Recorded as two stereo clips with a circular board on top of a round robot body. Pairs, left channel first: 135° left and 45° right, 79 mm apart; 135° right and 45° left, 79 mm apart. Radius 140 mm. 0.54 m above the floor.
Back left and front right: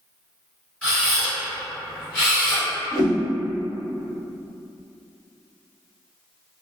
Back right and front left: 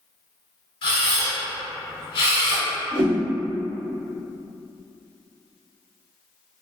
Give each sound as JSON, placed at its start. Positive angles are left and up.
{"t": 0.8, "sound": "a camera shutter", "azimuth_deg": -145, "distance_m": 0.5}
{"t": 2.9, "sound": "a whoosh", "azimuth_deg": 45, "distance_m": 0.9}